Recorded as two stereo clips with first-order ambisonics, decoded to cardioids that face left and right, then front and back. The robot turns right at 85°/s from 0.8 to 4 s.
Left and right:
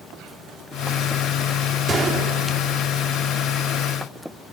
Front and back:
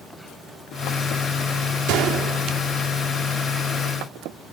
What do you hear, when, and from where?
1.9 s a gunshot: 160° right, 2 m; by 2.8 s 75° right, 2 m